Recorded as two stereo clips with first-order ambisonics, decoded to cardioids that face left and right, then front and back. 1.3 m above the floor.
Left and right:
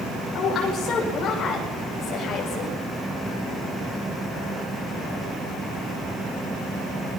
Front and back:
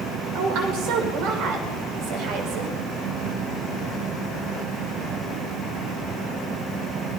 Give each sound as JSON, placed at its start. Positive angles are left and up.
{"t": 0.3, "sound": "a woman speaking", "azimuth_deg": 150, "distance_m": 6.0}